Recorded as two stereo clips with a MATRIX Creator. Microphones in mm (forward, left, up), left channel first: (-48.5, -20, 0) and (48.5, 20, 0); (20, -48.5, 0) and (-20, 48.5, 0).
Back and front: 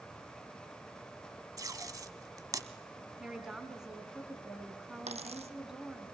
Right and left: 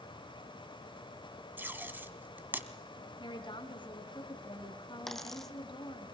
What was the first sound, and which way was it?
Tape being pulled, 50° left.